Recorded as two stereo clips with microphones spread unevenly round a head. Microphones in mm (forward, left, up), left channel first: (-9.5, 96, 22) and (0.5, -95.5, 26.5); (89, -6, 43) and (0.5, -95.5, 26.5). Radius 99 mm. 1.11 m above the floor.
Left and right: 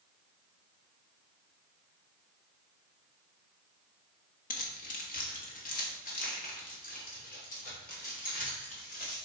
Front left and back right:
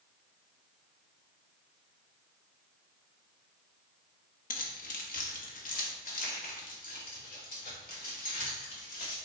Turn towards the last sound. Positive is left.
turn(degrees=45)